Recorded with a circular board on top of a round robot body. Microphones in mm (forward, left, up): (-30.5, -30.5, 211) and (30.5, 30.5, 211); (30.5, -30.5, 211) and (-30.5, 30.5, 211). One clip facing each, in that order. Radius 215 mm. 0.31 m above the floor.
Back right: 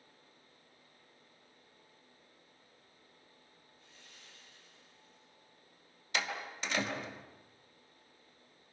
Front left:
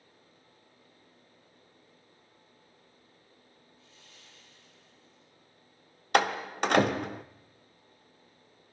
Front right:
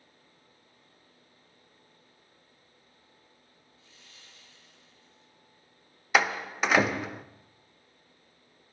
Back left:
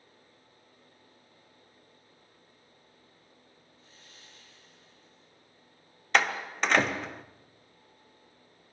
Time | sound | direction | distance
3.8 | sawing | 175° right | 9 m
6.1 | a door slam | 35° left | 1.5 m